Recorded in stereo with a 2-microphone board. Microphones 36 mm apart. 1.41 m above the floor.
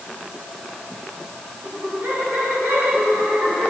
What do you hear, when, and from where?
1.6 s laughter: 85° right, 7.5 m; by 3.7 s 70° right (ahead or behind), 8 m